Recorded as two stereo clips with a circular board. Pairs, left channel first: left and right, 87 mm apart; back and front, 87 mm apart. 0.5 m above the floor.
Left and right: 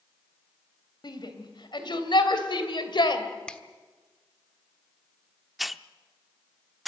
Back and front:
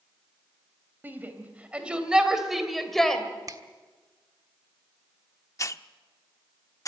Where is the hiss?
Straight behind, 0.5 m.